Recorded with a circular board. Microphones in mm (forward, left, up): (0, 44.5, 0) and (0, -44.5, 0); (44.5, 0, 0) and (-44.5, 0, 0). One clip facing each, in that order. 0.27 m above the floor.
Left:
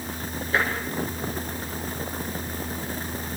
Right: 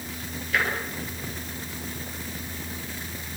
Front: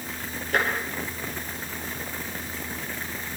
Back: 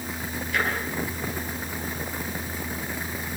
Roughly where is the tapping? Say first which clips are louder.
Left 2 dB, front 2 dB; ahead left.